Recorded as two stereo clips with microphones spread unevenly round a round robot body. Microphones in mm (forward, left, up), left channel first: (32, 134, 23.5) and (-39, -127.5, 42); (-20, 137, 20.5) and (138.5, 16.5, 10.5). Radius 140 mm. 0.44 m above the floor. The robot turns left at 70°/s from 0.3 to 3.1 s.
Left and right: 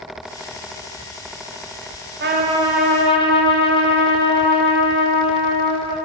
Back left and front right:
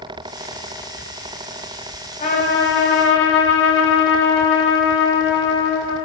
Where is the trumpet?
155° right, 3 m; by 6.0 s 145° left, 3 m.